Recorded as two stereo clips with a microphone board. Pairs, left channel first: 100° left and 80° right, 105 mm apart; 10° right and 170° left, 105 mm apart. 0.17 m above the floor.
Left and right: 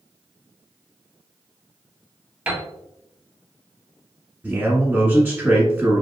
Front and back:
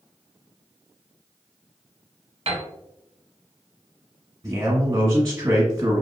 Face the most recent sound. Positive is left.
turn(degrees=-135)